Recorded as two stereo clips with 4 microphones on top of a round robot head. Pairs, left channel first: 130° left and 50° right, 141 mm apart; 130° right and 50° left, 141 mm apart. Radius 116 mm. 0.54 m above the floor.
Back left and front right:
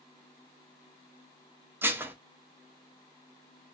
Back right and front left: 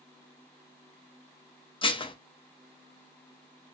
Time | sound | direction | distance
1.8 | dishes clattering | 120° right | 0.6 m